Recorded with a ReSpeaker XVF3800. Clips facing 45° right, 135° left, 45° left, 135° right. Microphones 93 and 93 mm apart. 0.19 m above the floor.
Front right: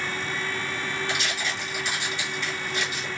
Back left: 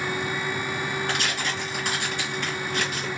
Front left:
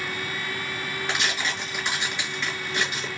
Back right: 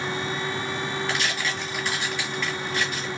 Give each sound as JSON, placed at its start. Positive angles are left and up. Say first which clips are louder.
{"t": 1.1, "sound": "tearing paper", "louder": "back left 2 dB, back right 1 dB", "azimuth_deg": 110, "distance_m": 3.0}